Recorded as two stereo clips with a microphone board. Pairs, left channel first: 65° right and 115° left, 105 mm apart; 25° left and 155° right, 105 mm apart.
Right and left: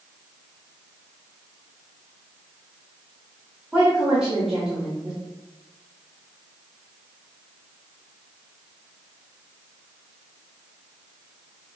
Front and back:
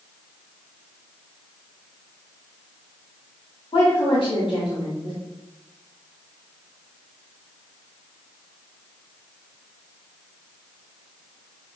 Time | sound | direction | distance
3.7 | a woman speaking | 30° left | 1.3 m